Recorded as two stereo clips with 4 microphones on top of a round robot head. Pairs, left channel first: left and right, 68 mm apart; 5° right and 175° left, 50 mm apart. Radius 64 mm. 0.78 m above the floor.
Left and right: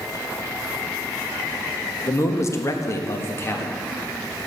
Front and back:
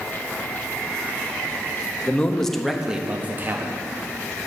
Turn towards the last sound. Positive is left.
turn(degrees=145)